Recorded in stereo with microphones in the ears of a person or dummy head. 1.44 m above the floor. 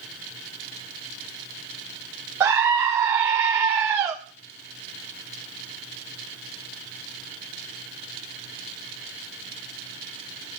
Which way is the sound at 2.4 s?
15° right (ahead or behind).